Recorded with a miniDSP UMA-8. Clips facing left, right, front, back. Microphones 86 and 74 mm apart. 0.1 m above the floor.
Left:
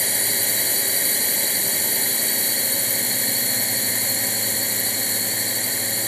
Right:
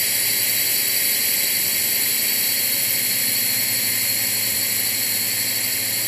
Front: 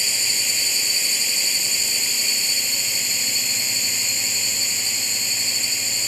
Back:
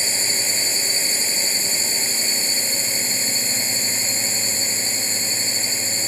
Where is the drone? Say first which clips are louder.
Left 2 dB, back 2 dB; 135° left.